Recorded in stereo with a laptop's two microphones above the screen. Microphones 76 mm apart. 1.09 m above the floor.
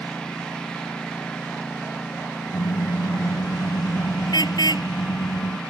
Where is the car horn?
65° left (ahead or behind).